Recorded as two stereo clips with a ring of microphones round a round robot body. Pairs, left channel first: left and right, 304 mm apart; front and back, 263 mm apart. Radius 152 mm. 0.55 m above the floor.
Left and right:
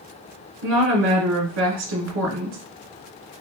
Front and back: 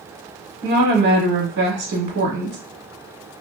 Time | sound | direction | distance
0.6 | a woman speaking | 130° right | 1.3 m